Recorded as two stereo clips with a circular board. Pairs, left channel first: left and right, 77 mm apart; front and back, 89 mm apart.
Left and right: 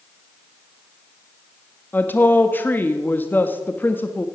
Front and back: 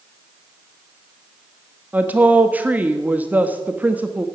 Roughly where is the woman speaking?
Behind left.